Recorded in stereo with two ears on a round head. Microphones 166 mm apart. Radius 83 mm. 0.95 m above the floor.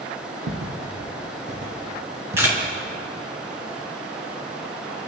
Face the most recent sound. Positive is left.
turn(degrees=-15)  # may be behind; listen again after turning